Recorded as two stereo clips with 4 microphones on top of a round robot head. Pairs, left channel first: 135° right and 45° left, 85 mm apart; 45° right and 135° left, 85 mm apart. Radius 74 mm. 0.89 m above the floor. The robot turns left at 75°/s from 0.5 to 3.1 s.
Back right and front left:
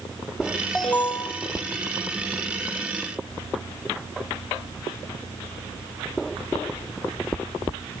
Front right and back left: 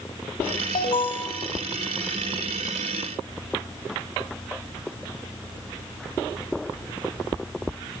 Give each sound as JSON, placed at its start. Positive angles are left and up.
{"t": 0.8, "sound": "an alarm", "azimuth_deg": -45, "distance_m": 3.0}